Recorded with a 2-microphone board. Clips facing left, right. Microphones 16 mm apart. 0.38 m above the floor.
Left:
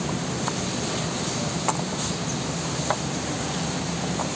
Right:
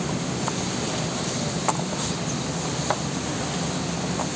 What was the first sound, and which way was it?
Only background noise.